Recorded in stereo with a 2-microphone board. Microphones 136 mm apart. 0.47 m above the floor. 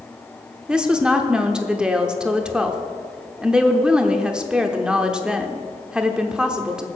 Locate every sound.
0.7 s a woman speaking: 5° right (ahead or behind), 0.9 m